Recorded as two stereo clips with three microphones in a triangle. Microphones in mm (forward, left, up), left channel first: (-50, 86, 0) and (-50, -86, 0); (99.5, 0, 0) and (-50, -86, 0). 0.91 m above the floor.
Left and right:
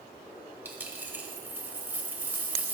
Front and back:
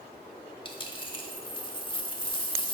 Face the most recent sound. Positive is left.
turn(degrees=-15)